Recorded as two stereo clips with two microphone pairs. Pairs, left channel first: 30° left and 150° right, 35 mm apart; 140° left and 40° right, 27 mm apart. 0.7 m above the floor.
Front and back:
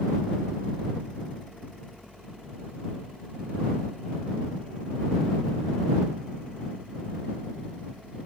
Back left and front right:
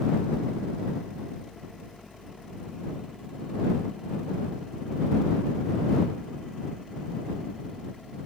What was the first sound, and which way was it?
Only background noise.